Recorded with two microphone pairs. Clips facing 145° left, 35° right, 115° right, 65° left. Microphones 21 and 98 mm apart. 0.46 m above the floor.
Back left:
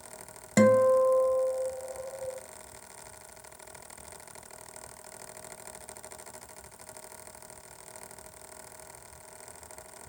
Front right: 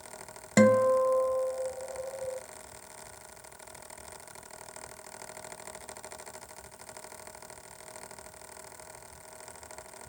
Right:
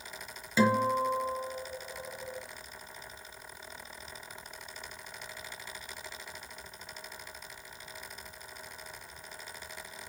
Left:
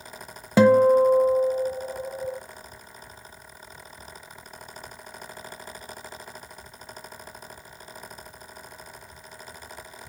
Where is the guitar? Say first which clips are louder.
Back left 1 dB, left 11 dB; 45° left, 1.0 m.